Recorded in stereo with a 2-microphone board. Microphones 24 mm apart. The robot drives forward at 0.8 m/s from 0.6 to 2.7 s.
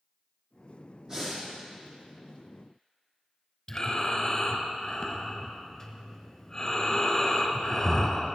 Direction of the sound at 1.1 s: 25° right (ahead or behind).